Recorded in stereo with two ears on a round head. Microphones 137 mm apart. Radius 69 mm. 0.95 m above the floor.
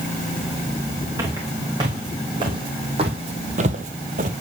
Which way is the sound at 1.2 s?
25° right (ahead or behind).